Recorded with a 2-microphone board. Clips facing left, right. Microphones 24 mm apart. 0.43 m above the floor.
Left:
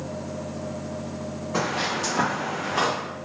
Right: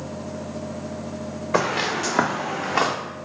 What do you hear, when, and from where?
1.5 s footsteps: 55° right (ahead or behind), 1.5 m; by 2.9 s 30° right (ahead or behind), 1.0 m